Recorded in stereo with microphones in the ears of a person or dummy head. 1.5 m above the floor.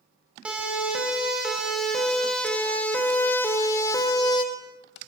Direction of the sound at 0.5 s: 10° right (ahead or behind).